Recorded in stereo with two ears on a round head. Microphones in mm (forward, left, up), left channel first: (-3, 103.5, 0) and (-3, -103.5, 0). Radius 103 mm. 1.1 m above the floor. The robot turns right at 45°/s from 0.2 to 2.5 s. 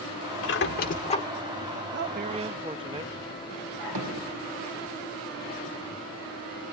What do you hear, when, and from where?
0.4 s a squeak: 120° left, 1.4 m; by 1.2 s 160° left, 1.4 m
1.9 s a man speaking: 50° right (ahead or behind), 1.0 m; by 3.9 s 20° right (ahead or behind), 1.0 m
4.0 s hammering: 80° right, 5.5 m